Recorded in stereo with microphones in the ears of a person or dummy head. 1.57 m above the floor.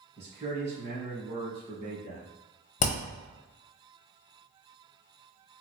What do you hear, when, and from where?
0.2 s a man speaking: 35° right (ahead or behind), 1.9 m
2.8 s hammering: 40° left (ahead or behind), 0.8 m